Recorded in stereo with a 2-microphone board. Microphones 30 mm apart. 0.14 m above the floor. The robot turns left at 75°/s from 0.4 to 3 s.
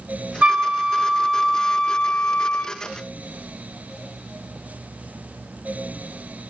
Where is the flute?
110° right, 1.1 m; by 2.7 s 75° left, 1.1 m.